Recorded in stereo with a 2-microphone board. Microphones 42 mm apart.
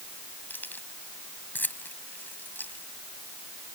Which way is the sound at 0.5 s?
50° left (ahead or behind).